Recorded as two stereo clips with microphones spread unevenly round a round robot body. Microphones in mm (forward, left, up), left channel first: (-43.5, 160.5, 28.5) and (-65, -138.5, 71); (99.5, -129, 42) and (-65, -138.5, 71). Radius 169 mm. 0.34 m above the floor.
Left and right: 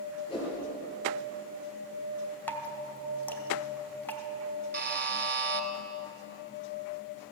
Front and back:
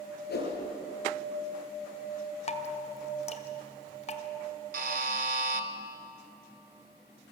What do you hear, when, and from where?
0.3 s a whoosh: 10° left, 7.5 m
2.5 s dripping: 10° left, 1.7 m
4.7 s a buzzer: 150° right, 1.9 m